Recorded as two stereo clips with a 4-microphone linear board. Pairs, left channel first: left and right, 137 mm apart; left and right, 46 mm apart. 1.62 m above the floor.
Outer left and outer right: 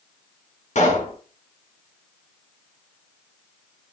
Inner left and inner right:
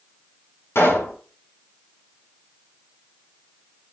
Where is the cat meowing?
No cat meowing in this recording.